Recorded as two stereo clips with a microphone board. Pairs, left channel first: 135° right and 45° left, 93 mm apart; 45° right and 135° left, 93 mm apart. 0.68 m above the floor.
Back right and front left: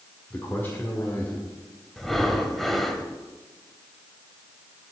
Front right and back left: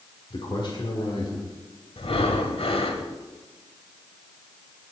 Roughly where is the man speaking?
Right.